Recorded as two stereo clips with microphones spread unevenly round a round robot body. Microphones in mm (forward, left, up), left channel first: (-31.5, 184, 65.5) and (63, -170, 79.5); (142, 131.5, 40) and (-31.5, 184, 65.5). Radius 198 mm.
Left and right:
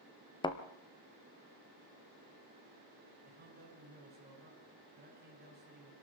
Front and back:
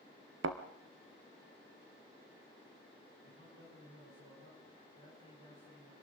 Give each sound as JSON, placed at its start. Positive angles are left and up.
{"t": 0.4, "sound": "a thud", "azimuth_deg": -175, "distance_m": 0.9}
{"t": 3.2, "sound": "a man speaking", "azimuth_deg": -140, "distance_m": 7.0}